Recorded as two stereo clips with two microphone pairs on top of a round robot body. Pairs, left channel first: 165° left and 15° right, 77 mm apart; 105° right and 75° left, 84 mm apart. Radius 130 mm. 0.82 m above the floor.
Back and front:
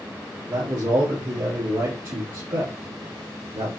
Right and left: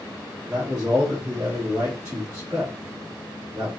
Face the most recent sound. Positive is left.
turn(degrees=15)